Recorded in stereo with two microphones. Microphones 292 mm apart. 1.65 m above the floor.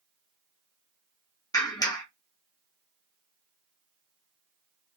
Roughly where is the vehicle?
I don't hear a vehicle.